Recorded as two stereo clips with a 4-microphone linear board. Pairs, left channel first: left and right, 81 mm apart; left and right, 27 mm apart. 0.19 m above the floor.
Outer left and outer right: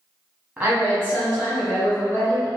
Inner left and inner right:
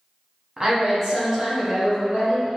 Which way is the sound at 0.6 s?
20° right (ahead or behind).